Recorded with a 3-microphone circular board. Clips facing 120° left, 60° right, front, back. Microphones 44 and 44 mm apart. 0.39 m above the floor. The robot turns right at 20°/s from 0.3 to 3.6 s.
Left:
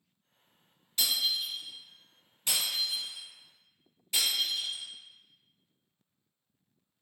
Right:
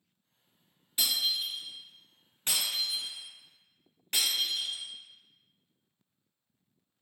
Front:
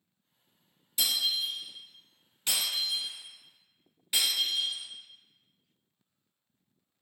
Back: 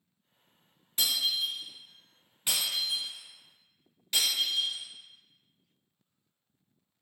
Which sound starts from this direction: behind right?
Breaking glass, at 1.0 s.